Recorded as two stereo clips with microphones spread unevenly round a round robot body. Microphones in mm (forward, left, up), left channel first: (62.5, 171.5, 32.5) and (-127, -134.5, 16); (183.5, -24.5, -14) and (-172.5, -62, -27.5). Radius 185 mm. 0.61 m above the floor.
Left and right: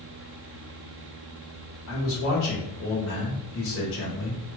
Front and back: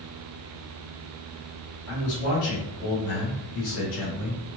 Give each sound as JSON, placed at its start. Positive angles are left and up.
{"t": 1.9, "sound": "a man speaking", "azimuth_deg": 15, "distance_m": 1.3}